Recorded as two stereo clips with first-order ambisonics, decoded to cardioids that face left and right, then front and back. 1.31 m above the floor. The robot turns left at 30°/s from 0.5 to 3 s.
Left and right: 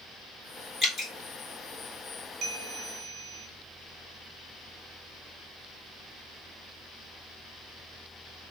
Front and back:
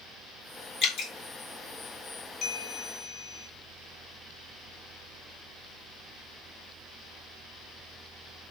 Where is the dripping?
30° left, 2 m; by 1.1 s 20° left, 2 m.